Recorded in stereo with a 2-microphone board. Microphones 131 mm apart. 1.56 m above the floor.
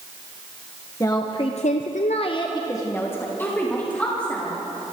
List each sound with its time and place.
1.0 s a woman speaking: 25° left (ahead or behind), 1.3 m; by 4.5 s 10° left (ahead or behind), 3.5 m